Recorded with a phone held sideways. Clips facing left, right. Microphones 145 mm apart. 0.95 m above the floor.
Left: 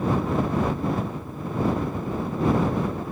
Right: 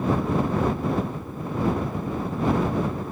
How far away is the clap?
No clap in this recording.